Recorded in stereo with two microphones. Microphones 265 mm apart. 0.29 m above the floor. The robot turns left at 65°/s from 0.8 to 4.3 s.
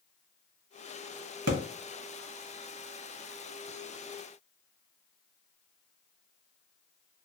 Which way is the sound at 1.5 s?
65° right (ahead or behind).